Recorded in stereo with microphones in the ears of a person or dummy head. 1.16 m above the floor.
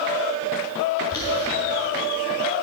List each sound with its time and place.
1.1 s boiling: 15° left (ahead or behind), 3.5 m